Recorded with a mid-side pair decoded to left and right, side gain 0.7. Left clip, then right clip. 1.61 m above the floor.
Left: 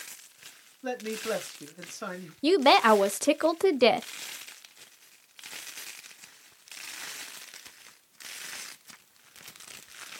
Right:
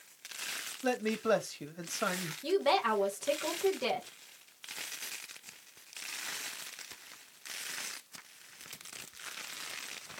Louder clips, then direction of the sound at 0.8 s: Right 1 dB; 20° right.